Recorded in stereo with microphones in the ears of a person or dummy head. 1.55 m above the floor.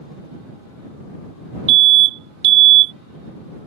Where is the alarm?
65° right (ahead or behind).